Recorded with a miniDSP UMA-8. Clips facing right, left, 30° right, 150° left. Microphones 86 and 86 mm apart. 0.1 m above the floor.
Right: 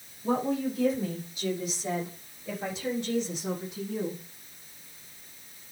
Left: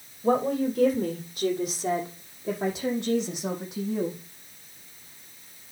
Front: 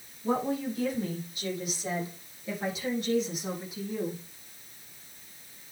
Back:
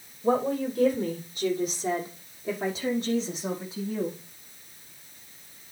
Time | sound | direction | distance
0.2 | a woman speaking | 110° left | 4 m